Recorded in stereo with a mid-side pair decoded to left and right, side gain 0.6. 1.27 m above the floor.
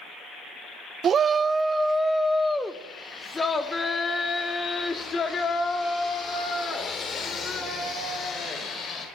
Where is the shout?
40° right, 0.7 m; by 9.1 s 40° left, 5.5 m.